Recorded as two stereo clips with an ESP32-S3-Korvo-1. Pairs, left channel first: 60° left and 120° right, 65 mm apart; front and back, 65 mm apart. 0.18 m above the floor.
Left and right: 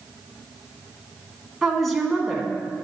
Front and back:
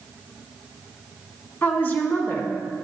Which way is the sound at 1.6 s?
30° right.